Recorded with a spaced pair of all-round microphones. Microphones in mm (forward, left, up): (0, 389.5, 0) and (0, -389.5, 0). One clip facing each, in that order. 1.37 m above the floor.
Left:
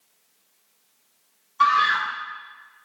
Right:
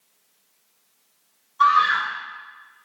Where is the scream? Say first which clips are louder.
Right 2 dB; 60° left (ahead or behind), 0.8 m.